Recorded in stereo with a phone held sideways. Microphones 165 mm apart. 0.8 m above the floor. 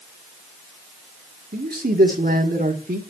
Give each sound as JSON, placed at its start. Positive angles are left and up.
{"t": 1.5, "sound": "a man speaking", "side_deg": -65, "distance_m": 1.7}